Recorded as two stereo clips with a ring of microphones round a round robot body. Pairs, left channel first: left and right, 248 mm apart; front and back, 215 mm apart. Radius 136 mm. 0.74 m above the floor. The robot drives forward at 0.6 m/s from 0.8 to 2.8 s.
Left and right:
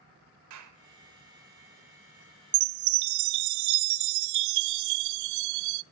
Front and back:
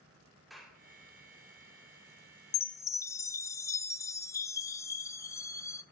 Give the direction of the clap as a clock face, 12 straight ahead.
3 o'clock.